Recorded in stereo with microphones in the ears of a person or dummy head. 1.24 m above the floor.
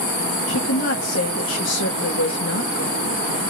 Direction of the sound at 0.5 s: 60° left (ahead or behind).